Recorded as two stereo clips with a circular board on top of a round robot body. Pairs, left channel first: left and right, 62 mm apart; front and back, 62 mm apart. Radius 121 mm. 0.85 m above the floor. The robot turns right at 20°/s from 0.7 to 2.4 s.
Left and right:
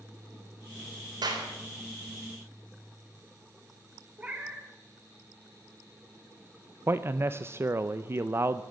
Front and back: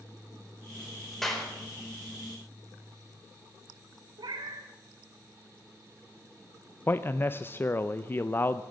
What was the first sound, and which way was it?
A clap, 85° right.